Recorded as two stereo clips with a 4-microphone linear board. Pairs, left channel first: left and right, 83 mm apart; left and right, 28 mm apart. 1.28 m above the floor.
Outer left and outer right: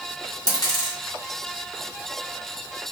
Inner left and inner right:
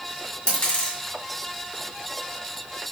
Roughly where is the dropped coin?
Left.